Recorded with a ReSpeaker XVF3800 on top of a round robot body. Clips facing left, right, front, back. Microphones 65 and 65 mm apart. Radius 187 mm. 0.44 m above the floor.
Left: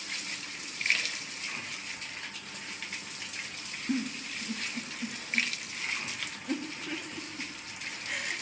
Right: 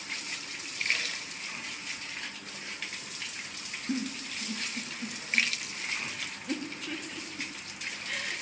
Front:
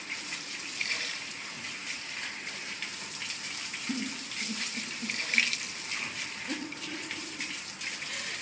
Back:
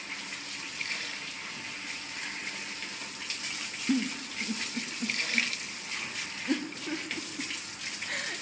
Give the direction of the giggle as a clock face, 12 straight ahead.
6 o'clock.